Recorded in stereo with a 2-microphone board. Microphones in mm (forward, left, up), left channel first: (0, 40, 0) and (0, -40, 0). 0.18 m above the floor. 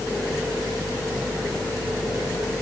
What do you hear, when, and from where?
Only background noise.